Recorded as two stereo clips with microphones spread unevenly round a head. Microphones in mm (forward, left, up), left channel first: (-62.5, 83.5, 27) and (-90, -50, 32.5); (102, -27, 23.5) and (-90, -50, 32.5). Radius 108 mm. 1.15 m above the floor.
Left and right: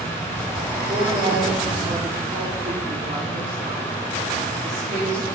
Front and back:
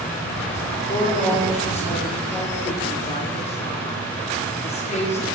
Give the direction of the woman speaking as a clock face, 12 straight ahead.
2 o'clock.